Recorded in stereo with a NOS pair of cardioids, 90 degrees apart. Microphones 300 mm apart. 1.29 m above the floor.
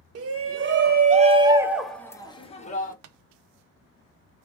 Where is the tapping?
55° right, 0.7 m.